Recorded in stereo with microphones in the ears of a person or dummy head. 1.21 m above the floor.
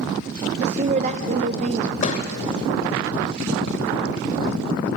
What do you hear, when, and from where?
0.6 s a woman speaking: 40° right (ahead or behind), 1.0 m
2.0 s a thud: 35° left (ahead or behind), 1.9 m